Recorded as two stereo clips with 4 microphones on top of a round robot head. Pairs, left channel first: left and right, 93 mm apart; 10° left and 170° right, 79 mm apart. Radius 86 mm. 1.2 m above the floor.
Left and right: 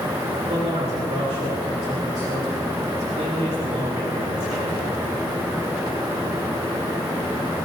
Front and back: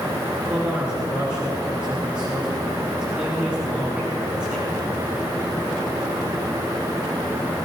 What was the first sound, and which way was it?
A man speaking, 90° right.